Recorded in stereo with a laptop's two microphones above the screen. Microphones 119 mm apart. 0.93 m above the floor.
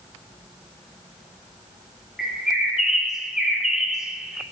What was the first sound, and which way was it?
A bird, 5° right (ahead or behind).